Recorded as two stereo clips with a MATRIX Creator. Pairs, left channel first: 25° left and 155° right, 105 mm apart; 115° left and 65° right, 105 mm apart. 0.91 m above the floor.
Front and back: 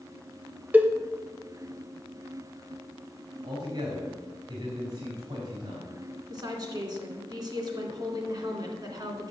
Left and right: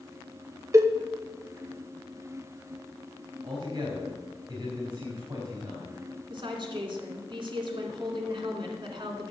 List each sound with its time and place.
0.7 s a cowbell: 95° right, 0.7 m
3.4 s a man speaking: 125° right, 3.5 m
6.3 s a woman speaking: 110° right, 2.5 m